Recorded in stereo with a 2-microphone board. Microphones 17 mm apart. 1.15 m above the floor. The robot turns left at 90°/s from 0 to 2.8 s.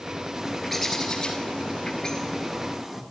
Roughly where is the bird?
Behind right.